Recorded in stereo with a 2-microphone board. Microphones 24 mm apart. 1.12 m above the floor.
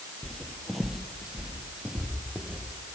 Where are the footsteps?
30° left (ahead or behind), 1.2 m; by 2.6 s 50° right (ahead or behind), 2.5 m.